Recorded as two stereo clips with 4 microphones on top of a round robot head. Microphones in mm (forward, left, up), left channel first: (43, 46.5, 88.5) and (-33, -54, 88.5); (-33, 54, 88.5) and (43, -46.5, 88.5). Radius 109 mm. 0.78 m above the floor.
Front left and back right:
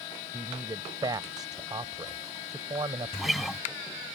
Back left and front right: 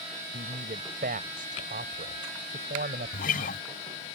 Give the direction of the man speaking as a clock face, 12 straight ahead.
2 o'clock.